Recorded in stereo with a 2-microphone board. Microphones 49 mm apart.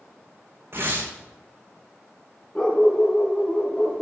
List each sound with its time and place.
0.7 s tearing paper: 50° right (ahead or behind), 6.5 m
2.5 s a dog barking: 20° left (ahead or behind), 5 m